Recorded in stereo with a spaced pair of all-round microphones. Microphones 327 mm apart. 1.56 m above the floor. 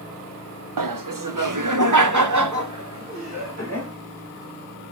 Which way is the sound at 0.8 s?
80° right.